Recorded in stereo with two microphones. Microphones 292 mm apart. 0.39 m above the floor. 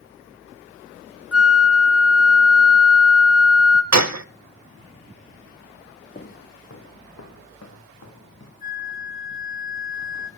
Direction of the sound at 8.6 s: 35° left (ahead or behind).